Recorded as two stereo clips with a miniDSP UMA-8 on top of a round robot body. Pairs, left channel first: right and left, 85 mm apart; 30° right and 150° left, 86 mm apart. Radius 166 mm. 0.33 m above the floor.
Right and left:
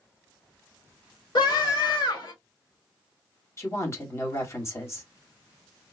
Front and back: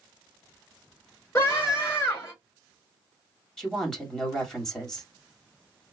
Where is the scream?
85° right, 3.5 m.